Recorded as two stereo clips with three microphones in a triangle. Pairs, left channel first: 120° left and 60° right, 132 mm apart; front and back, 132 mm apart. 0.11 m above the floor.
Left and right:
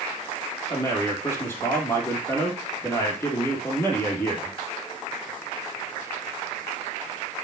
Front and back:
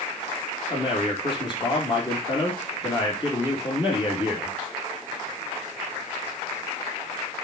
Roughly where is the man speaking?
Ahead left.